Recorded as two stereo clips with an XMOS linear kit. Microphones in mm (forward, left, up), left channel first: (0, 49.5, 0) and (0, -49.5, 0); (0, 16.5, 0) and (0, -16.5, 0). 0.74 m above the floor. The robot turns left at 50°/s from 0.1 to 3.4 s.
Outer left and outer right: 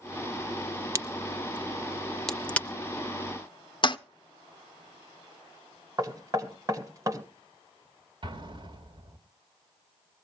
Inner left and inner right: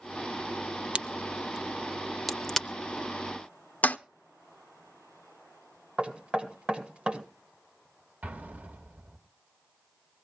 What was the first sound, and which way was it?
A crack, 30° right (ahead or behind).